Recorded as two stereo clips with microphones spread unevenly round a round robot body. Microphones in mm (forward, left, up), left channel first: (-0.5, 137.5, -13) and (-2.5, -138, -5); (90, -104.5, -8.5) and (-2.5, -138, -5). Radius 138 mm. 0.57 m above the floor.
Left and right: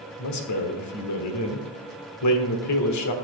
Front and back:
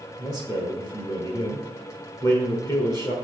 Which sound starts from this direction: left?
A man speaking, at 0.2 s.